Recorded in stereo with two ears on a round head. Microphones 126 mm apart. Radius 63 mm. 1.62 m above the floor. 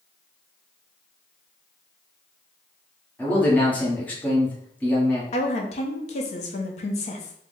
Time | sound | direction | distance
3.2 | a man speaking | 10° left (ahead or behind) | 1.3 m
5.3 | a woman speaking | 45° left (ahead or behind) | 0.8 m